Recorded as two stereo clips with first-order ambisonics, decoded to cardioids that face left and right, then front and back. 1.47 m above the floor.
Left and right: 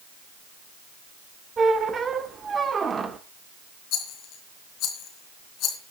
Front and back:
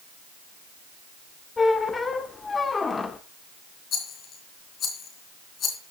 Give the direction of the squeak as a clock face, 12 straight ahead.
2 o'clock.